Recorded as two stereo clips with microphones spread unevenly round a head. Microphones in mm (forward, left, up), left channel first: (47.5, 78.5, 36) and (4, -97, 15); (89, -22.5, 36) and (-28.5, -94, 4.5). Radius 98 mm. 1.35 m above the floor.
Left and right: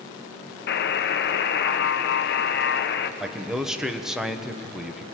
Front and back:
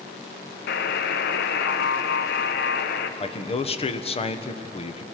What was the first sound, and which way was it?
A buzzer, 45° left.